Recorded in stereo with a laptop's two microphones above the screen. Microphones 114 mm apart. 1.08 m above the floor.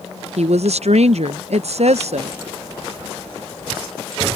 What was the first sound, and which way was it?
A woman speaking, 70° right (ahead or behind).